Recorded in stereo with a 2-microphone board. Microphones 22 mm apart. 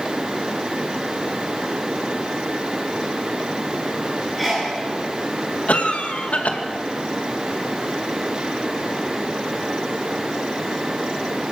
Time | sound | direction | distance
4.4 | a sneeze | 5° left (ahead or behind) | 9.5 m
5.7 | a cough | 70° left (ahead or behind) | 2 m